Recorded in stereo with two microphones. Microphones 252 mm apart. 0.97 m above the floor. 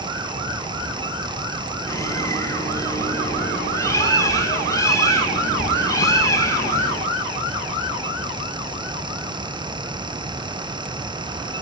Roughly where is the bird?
Centre.